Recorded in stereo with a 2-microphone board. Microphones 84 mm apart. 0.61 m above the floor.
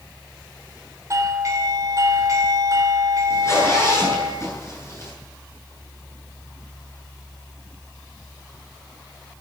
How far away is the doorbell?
About 3 m.